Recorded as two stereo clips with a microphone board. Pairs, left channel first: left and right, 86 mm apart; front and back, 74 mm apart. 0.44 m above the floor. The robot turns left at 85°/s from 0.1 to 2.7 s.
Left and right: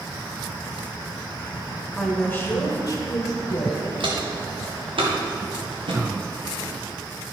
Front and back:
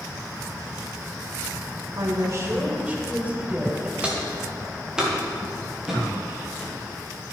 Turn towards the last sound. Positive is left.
turn(degrees=-90)